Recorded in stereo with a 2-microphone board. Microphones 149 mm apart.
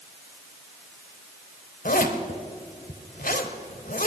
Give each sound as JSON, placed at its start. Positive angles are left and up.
{"t": 1.9, "sound": "a zipper", "side_deg": 70, "distance_m": 1.1}